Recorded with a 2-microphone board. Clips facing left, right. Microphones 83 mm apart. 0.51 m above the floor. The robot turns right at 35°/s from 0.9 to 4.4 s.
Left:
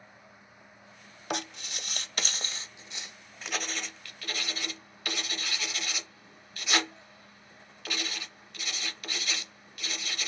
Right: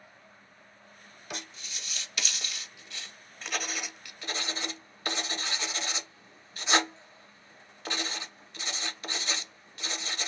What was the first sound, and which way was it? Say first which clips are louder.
Writing: left 8 dB; 65° left (ahead or behind).